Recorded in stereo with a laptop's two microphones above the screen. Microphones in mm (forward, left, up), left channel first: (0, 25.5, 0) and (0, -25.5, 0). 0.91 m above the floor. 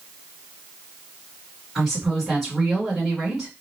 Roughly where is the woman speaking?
Centre.